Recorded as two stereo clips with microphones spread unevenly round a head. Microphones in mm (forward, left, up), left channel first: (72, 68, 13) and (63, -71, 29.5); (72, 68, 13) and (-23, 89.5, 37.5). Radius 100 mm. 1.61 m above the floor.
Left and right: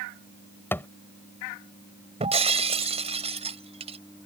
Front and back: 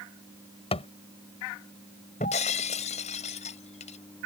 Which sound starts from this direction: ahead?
A thud, at 0.7 s.